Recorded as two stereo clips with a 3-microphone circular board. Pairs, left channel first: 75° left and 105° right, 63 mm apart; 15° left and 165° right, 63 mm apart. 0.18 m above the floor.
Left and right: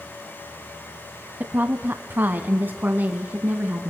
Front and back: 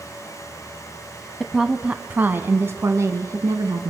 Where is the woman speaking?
75° right, 1.2 m; by 3.9 s 165° right, 2 m.